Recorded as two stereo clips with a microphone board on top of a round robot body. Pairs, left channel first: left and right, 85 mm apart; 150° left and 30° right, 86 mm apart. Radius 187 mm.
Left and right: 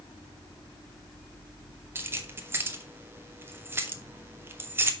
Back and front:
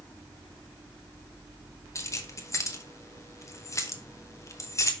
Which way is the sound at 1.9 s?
155° right.